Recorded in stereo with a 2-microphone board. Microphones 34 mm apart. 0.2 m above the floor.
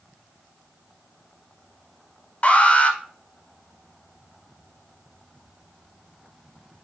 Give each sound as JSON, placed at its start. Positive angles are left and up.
{"t": 2.4, "sound": "an alarm", "side_deg": 35, "distance_m": 1.0}